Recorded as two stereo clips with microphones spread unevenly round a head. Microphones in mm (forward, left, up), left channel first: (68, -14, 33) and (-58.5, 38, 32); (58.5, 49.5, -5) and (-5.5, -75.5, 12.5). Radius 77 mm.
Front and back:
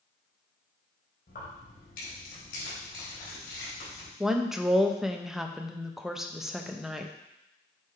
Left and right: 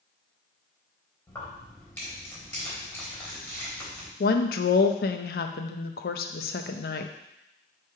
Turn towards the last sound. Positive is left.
turn(degrees=70)